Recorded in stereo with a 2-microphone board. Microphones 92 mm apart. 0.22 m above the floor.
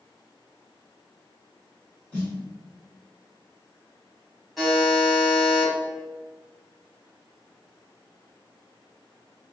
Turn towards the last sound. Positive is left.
turn(degrees=0)  # may be behind; listen again after turning